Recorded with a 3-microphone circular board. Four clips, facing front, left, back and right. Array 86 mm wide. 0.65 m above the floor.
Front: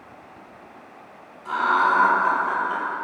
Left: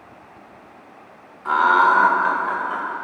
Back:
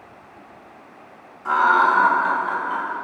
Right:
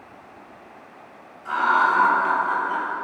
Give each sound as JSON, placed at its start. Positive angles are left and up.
{"t": 1.4, "sound": "laughter", "azimuth_deg": 125, "distance_m": 1.6}